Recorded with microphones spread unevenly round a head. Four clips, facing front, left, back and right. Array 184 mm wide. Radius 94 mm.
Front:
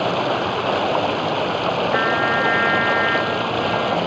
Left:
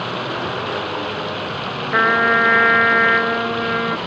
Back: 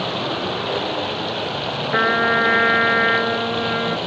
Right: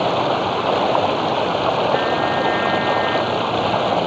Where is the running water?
60° right.